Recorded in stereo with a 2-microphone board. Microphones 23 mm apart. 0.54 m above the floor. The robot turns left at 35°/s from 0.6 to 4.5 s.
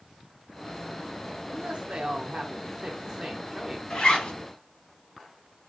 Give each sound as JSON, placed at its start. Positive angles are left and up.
{"t": 1.5, "sound": "a woman speaking", "azimuth_deg": -80, "distance_m": 1.2}
{"t": 3.9, "sound": "a zipper", "side_deg": 45, "distance_m": 3.0}